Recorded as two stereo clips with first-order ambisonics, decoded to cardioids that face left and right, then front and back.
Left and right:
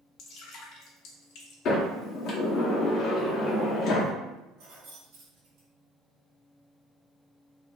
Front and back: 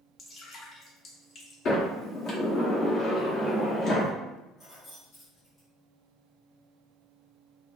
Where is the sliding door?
45° left, 0.7 m.